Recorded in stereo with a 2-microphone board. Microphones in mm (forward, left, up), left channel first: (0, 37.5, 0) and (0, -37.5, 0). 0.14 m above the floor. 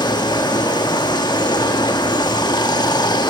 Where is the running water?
70° left (ahead or behind), 0.7 m.